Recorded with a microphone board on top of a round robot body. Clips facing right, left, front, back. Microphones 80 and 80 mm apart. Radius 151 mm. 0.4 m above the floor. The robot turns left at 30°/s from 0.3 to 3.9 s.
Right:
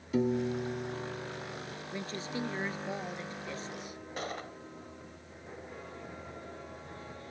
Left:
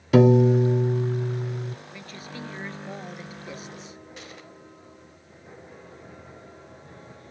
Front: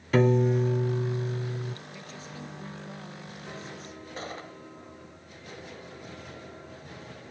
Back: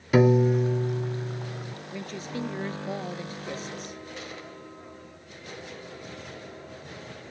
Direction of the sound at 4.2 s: 50° right.